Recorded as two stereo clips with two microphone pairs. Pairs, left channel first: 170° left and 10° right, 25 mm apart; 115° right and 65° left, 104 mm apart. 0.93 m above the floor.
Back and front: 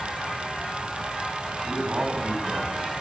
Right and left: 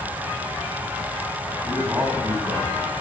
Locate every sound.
1.6 s a man speaking: straight ahead, 7 m; by 2.7 s 5° right, 8 m